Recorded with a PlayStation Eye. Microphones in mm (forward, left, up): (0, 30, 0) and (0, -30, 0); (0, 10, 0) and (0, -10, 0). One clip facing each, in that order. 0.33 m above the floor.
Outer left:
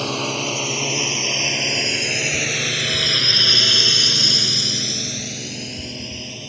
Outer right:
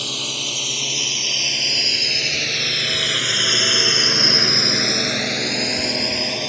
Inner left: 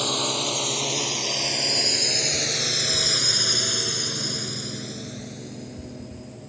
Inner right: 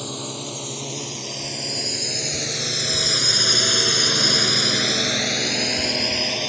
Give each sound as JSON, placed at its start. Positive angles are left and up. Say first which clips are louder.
{"t": 0.0, "sound": "a drone", "louder": "outer left 6 dB, inner left 6 dB", "side_deg": 40}